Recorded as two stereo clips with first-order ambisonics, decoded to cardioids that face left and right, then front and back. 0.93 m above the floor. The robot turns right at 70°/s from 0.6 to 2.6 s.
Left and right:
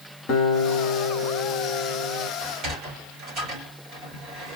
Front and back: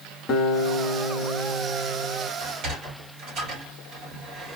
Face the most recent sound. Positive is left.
turn(degrees=-135)